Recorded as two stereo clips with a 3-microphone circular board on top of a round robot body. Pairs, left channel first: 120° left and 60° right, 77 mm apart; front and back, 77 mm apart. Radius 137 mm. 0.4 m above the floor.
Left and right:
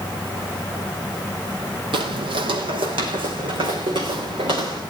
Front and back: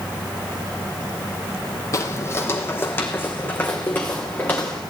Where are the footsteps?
50° right, 1.2 m; by 4.8 s 70° right, 4 m.